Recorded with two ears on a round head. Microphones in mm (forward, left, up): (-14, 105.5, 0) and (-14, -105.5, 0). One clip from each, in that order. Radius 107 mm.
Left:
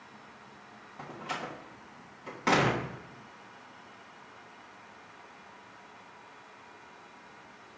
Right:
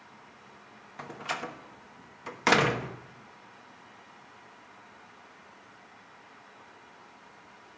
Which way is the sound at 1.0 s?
55° right (ahead or behind).